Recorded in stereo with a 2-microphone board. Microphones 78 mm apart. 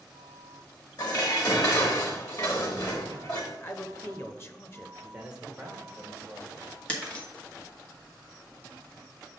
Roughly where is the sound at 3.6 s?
Left.